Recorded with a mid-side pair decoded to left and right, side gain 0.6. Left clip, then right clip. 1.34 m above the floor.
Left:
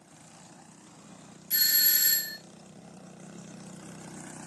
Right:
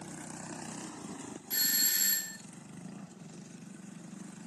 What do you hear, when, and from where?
1.5 s a doorbell: 15° left, 1.4 m